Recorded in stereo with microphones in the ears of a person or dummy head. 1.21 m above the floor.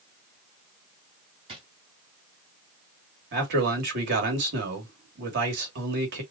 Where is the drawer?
25° right (ahead or behind), 3 m.